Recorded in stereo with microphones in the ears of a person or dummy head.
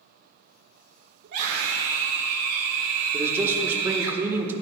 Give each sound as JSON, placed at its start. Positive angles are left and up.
{"t": 1.2, "sound": "a scream", "side_deg": -60, "distance_m": 1.4}
{"t": 3.1, "sound": "a man speaking", "side_deg": -10, "distance_m": 1.5}